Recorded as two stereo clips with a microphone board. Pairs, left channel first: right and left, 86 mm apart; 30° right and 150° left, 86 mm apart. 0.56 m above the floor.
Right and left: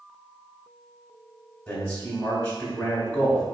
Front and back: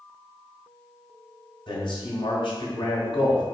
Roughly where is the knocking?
No knocking in this recording.